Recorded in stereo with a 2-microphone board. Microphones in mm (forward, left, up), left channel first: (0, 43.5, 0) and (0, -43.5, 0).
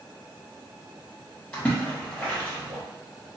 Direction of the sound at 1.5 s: 15° left (ahead or behind).